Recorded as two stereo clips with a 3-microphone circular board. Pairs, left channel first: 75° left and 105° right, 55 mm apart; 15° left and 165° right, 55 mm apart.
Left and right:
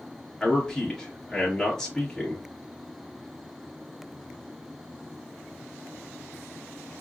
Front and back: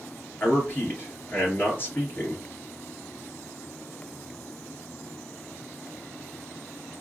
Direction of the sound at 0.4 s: Straight ahead.